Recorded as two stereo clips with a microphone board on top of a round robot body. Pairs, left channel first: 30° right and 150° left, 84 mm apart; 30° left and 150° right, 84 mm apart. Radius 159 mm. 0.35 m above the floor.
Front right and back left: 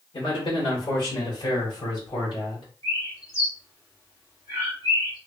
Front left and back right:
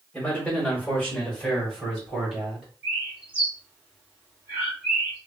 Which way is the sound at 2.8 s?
80° right.